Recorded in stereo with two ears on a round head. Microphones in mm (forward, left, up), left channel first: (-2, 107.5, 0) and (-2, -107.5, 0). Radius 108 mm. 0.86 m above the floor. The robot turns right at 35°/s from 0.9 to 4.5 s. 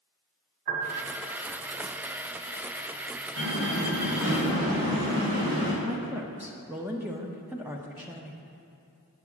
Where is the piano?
35° right (ahead or behind), 1.7 m; by 1.1 s 40° right (ahead or behind), 1.7 m.